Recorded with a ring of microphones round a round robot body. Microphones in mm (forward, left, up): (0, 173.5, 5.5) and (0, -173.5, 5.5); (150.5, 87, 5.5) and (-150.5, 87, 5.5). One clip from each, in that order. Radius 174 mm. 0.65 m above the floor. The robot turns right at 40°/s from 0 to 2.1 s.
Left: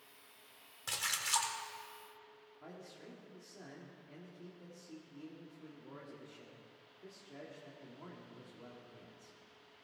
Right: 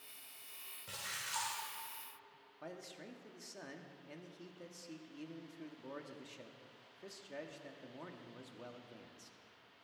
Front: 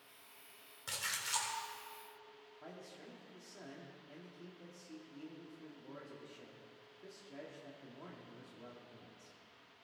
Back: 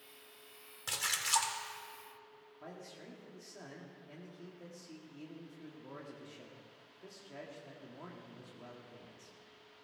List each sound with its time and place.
0.9 s a splash: 110° left, 1.8 m; by 1.5 s 140° left, 1.8 m
2.6 s a man speaking: 95° right, 1.5 m